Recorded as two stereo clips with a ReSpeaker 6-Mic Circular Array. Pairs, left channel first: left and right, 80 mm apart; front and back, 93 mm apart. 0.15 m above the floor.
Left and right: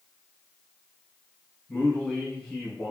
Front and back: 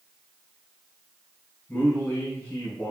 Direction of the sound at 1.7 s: 25° left.